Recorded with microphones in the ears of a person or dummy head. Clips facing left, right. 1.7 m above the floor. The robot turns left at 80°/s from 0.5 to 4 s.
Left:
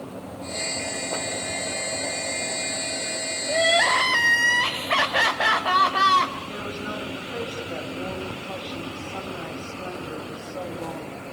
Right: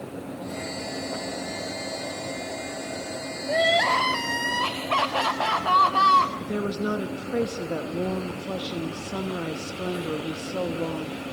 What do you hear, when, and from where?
3.5 s crying: 160° right, 3 m; by 6.3 s 155° left, 3 m
6.4 s a woman speaking: 55° right (ahead or behind), 2.5 m